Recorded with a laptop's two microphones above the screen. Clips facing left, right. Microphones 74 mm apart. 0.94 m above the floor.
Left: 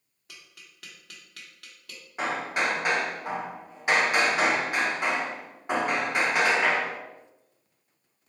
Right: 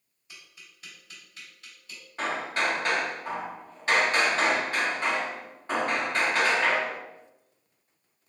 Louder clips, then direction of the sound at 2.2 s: Left 1 dB; 15° left (ahead or behind).